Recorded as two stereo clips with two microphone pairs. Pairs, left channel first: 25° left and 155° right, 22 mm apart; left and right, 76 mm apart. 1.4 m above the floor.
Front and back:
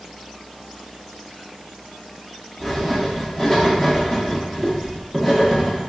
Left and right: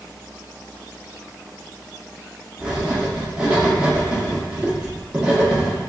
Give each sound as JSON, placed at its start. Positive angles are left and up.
{"t": 2.6, "sound": "writing", "azimuth_deg": -35, "distance_m": 0.8}